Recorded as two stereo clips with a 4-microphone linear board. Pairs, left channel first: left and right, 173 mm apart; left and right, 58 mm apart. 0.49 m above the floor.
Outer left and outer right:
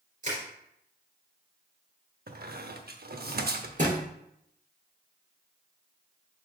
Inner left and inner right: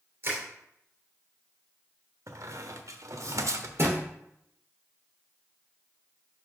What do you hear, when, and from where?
0.2 s crushing: 45° right (ahead or behind), 2.5 m
2.3 s a squeak: 65° right (ahead or behind), 0.7 m
3.8 s a thud: 45° right (ahead or behind), 3 m